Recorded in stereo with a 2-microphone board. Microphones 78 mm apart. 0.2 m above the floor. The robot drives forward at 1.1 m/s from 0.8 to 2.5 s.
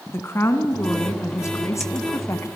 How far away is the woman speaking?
About 2 m.